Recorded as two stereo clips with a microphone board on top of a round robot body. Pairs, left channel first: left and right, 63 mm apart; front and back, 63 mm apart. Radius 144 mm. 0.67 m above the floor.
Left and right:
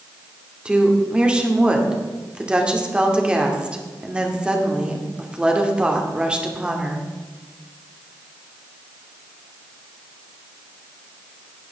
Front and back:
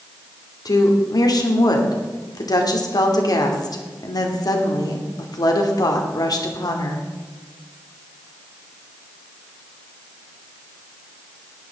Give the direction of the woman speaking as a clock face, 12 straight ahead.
1 o'clock.